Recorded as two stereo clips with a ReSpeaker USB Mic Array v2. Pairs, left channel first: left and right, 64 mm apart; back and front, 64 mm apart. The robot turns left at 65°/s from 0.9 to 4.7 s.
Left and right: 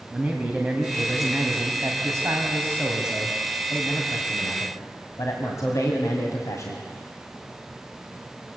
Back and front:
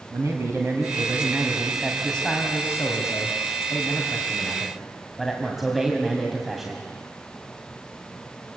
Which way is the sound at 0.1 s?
25° right.